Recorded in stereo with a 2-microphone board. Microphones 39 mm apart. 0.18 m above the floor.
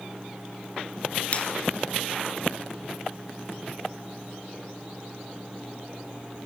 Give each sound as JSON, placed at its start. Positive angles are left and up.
{"t": 1.3, "sound": "a finger snap", "side_deg": 35, "distance_m": 2.5}